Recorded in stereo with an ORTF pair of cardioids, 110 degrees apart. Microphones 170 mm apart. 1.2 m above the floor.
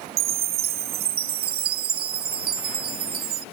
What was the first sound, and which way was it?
A chime, 60° right.